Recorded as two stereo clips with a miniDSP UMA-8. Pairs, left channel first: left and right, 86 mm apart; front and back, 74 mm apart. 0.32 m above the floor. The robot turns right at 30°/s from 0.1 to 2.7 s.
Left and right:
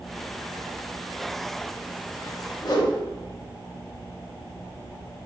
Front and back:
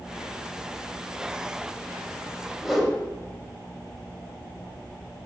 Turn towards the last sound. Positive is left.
turn(degrees=95)